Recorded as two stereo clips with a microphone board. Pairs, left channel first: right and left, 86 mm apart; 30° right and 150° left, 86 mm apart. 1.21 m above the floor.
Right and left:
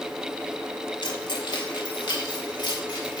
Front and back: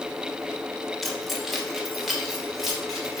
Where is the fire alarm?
No fire alarm in this recording.